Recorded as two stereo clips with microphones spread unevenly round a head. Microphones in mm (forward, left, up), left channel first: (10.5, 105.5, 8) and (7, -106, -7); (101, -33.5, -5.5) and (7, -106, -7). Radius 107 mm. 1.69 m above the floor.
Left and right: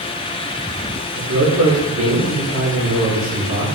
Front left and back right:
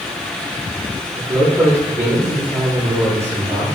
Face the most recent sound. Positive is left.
turn(degrees=-75)